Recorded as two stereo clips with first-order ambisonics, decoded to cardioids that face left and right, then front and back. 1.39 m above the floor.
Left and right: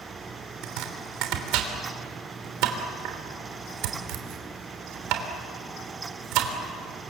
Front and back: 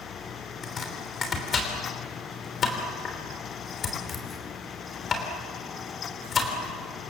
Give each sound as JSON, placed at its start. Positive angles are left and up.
{"t": 0.6, "sound": "chopping", "azimuth_deg": -65, "distance_m": 3.0}